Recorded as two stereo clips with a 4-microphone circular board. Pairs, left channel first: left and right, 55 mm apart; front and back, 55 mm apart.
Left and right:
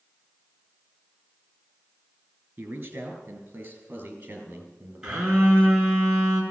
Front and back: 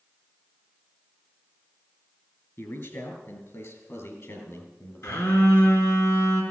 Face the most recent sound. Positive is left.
turn(degrees=-15)